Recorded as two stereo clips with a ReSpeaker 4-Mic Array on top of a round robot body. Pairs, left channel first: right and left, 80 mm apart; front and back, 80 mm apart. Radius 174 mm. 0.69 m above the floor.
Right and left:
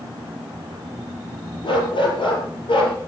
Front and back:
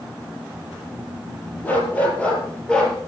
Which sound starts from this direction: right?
A dog barking, at 1.6 s.